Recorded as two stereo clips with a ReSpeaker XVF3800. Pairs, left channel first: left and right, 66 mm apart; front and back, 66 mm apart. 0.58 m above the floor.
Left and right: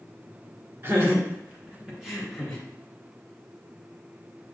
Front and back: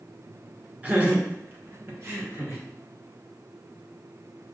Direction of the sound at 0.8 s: 125° right.